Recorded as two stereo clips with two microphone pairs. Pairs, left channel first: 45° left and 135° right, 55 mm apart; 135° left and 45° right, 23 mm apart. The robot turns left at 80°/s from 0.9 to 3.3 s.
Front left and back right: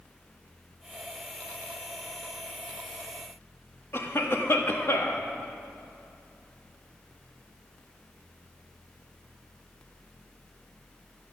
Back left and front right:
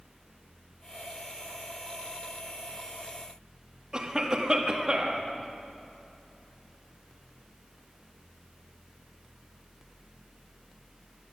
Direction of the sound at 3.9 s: 15° left.